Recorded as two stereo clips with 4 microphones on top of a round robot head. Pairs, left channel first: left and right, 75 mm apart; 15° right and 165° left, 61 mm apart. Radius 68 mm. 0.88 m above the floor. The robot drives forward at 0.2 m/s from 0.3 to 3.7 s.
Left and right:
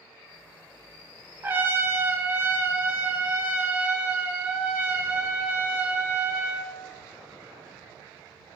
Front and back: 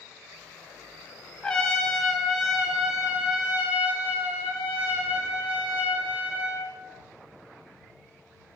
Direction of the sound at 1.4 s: 75° right.